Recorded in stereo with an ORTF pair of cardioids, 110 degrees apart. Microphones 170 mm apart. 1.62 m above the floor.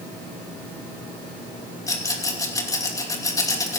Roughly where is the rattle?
Ahead.